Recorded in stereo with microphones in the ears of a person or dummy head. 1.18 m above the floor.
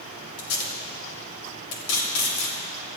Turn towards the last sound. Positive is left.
turn(degrees=80)